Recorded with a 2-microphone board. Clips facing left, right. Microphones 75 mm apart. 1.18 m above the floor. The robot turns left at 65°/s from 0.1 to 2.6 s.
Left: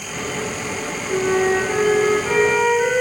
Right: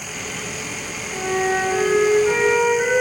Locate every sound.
1.1 s a flute: 80° left, 2.5 m; by 3.0 s 20° right, 2.5 m